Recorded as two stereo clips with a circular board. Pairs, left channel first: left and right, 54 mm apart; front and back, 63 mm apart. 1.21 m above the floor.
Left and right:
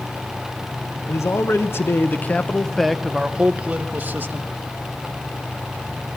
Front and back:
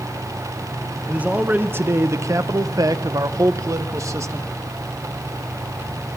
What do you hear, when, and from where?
1.1 s a man speaking: 110° left, 1.2 m; by 4.5 s 140° right, 1.4 m